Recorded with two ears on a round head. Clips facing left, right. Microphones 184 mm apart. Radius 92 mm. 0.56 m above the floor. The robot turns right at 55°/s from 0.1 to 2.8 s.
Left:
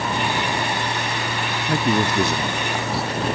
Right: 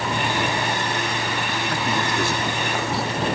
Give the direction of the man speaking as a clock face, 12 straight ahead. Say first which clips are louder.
Left 7 dB; 8 o'clock.